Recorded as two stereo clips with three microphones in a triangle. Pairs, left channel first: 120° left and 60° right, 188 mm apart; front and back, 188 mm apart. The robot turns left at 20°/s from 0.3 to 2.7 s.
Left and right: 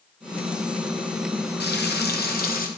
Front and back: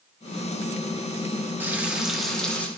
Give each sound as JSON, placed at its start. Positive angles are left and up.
{"t": 1.6, "sound": "frying", "azimuth_deg": 100, "distance_m": 0.8}